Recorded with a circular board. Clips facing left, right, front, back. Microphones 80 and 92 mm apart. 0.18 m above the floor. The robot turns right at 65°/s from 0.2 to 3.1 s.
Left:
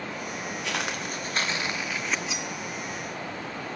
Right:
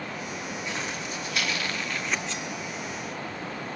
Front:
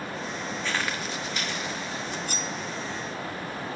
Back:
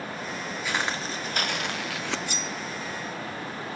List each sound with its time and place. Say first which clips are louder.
0.6 s footsteps: left 4 dB, back 2 dB; 100° left, 2.5 m; by 2.2 s straight behind, 0.6 m
2.3 s cutlery clinking: even, front 1 dB; 10° left, 1.0 m; by 2.5 s 30° left, 1.0 m